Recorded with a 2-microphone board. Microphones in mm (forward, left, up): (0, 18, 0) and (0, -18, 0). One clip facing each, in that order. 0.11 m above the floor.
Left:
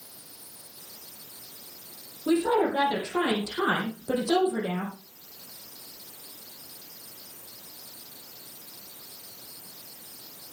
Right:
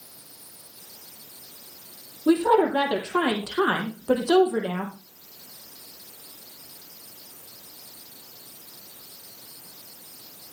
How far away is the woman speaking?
About 3.5 m.